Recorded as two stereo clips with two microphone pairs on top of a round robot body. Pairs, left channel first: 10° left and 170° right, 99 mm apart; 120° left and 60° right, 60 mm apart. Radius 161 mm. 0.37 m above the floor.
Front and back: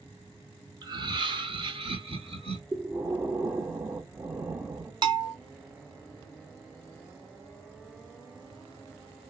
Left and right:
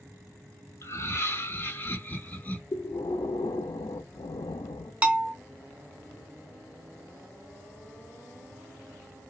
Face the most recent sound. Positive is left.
turn(degrees=-130)